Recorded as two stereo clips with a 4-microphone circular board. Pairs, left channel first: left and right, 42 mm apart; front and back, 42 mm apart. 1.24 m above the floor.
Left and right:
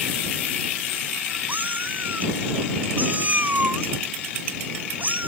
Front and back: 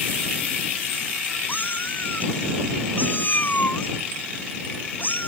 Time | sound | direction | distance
1.5 | a cat meowing | 40° right | ?